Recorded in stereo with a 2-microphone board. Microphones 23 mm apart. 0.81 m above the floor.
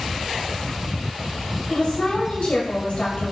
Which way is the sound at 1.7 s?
60° left (ahead or behind).